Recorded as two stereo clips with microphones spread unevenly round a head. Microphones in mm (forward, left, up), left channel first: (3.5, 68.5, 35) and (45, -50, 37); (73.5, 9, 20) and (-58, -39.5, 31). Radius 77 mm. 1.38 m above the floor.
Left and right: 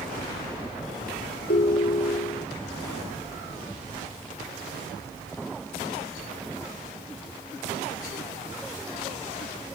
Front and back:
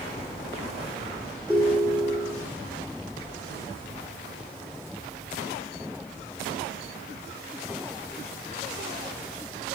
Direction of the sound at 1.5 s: 105° left.